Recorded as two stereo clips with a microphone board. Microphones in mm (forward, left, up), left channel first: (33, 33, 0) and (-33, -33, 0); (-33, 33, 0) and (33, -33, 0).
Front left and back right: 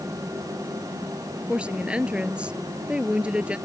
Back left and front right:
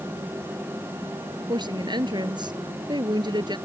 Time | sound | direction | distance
1.5 | a woman speaking | 60° right | ?